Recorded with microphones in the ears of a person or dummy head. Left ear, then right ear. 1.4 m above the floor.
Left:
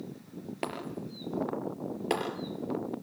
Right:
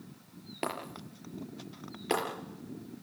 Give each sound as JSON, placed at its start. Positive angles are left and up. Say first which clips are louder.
{"t": 0.6, "sound": "breaking glass", "louder": "even", "side_deg": 5, "distance_m": 4.5}